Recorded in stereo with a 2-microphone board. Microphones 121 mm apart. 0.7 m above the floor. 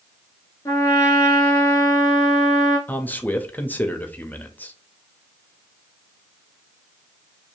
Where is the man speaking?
15° left (ahead or behind), 0.5 m.